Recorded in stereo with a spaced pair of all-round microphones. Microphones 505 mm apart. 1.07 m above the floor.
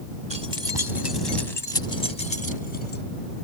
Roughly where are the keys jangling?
Left.